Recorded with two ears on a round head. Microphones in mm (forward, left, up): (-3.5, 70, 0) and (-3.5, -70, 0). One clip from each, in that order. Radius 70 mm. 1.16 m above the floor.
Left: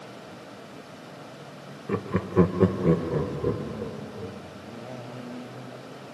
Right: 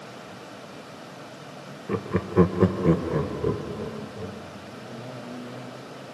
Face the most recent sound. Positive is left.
turn(degrees=-35)  # may be behind; listen again after turning